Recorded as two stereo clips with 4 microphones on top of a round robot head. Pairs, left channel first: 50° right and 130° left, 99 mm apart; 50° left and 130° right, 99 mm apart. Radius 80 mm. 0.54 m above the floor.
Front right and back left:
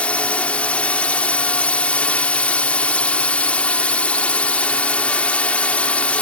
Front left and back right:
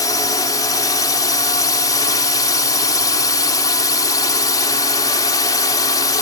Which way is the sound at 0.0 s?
20° left.